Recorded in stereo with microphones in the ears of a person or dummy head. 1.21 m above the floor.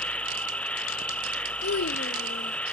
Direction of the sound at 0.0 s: 5° left (ahead or behind).